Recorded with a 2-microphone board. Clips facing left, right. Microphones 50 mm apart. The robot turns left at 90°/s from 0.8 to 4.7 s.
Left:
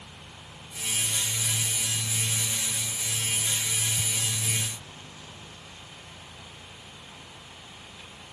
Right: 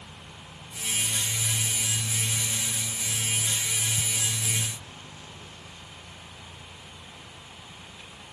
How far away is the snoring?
No snoring in this recording.